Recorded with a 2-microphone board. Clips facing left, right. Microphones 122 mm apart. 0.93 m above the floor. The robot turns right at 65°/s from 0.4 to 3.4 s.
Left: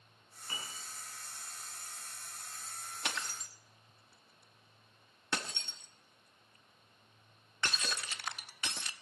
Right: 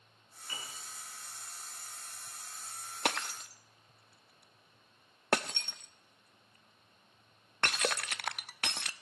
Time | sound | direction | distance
0.5 | a piano | 45° left (ahead or behind) | 7.5 m
3.0 | breaking glass | 60° right (ahead or behind) | 0.6 m